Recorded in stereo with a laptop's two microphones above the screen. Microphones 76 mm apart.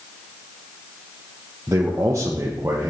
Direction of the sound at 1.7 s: 40° right (ahead or behind).